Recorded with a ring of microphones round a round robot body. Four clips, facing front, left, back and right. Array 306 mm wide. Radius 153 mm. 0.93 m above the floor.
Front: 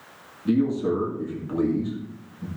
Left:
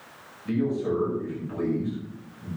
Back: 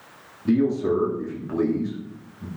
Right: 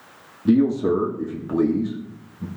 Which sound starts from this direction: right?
A man speaking, at 0.5 s.